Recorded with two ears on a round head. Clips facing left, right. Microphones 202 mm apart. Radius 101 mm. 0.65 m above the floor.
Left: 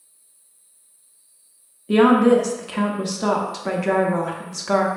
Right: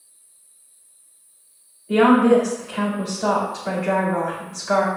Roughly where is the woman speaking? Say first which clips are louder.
Even; left.